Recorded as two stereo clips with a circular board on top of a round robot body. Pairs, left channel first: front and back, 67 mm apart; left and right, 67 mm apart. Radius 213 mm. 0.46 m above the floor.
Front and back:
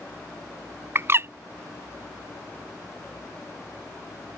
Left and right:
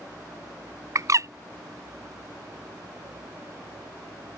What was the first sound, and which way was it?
A bird, 125° right.